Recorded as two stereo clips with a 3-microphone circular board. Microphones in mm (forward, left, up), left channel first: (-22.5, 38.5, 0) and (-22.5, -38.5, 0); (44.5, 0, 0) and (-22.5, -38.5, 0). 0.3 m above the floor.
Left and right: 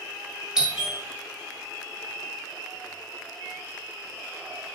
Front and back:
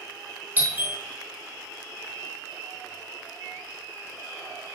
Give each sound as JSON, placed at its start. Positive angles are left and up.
{"t": 0.6, "sound": "a doorbell", "azimuth_deg": -155, "distance_m": 1.4}